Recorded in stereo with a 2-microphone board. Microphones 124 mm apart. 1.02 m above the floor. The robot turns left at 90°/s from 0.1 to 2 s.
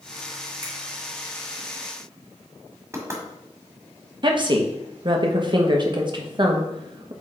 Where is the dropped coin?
I don't hear a dropped coin.